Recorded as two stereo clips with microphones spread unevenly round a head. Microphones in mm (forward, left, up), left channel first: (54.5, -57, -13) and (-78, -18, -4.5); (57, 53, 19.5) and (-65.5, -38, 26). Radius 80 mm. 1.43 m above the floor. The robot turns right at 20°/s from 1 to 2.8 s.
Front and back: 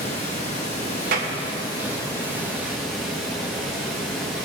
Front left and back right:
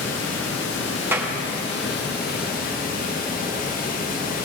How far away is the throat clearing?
No throat clearing in this recording.